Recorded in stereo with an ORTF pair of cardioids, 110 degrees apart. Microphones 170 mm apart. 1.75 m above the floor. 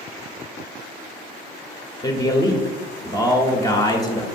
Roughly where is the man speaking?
Ahead.